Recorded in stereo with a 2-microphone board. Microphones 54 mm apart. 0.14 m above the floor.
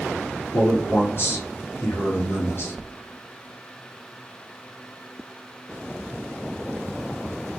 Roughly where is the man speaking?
Left.